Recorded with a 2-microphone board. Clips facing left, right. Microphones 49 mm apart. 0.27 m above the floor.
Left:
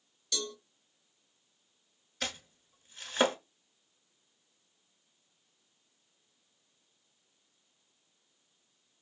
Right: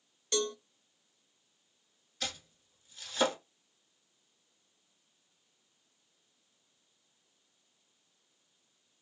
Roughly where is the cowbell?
Right.